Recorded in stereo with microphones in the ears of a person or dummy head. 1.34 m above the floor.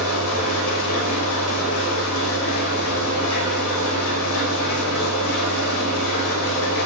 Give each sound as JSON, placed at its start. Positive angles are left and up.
{"t": 0.0, "sound": "an engine running", "side_deg": 80, "distance_m": 5.5}